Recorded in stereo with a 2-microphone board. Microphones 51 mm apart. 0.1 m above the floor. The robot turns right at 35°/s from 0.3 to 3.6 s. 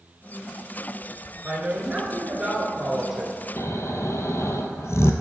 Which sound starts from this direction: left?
Snoring, at 3.6 s.